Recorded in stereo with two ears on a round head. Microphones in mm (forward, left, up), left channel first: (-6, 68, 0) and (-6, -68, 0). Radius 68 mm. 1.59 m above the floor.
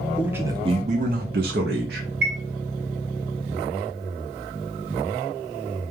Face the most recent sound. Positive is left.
turn(degrees=-75)  # may be behind; listen again after turning